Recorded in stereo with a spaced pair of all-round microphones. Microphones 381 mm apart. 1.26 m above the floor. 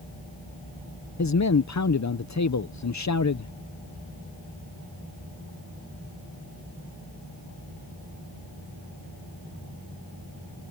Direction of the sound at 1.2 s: 45° left (ahead or behind).